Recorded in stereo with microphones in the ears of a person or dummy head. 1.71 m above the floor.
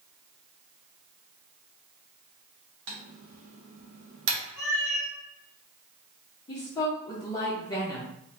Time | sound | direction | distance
2.9 | typing on a keyboard | 65° right (ahead or behind) | 1.1 m
4.6 | a cat meowing | 15° right (ahead or behind) | 1.8 m
6.5 | a woman speaking | 20° left (ahead or behind) | 0.9 m